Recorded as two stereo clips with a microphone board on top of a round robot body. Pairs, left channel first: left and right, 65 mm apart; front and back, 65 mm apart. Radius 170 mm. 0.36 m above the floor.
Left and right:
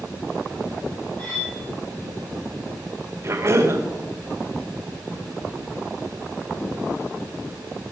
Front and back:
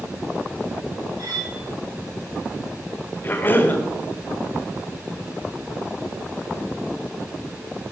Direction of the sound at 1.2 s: 155° left.